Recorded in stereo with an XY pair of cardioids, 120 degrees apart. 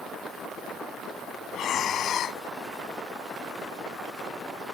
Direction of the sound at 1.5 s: 55° left.